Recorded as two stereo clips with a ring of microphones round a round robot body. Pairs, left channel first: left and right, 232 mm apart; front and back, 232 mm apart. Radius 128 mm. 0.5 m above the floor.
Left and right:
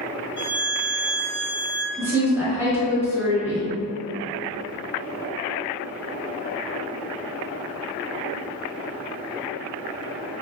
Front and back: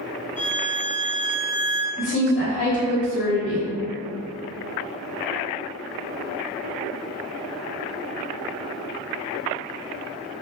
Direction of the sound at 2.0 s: 15° right.